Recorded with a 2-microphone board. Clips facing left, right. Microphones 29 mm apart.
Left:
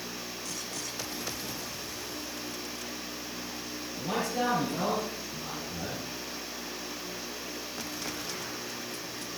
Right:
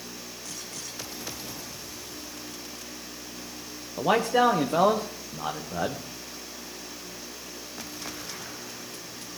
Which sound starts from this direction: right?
A man speaking, at 4.0 s.